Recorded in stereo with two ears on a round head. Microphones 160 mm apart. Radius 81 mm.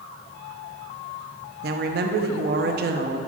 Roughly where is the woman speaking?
Right.